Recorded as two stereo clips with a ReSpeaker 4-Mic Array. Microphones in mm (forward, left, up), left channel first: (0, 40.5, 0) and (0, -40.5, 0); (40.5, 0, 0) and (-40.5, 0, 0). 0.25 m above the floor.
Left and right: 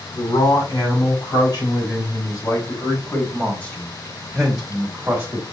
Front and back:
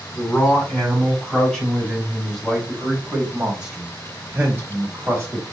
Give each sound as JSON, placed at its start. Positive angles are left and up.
{"t": 0.1, "sound": "a man speaking", "azimuth_deg": 70, "distance_m": 3.0}